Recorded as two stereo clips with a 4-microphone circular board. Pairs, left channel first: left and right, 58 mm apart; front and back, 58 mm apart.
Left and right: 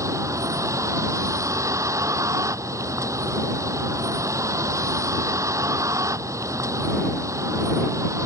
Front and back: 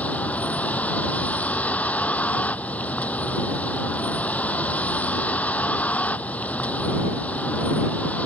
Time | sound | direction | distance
0.0 | a vehicle | 65° right | ?